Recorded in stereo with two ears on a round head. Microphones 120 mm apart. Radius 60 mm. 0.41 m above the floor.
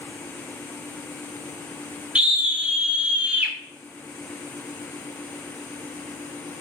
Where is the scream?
10° right (ahead or behind), 1.7 m.